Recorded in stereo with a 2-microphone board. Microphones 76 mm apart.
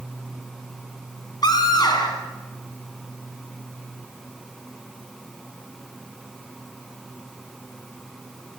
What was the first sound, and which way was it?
A scream, 60° left (ahead or behind).